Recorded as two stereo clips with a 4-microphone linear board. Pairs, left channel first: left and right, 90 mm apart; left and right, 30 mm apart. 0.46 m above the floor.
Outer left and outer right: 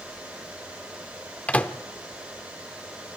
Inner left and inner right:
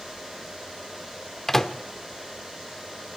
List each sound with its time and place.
1.5 s a microwave: 15° left (ahead or behind), 0.7 m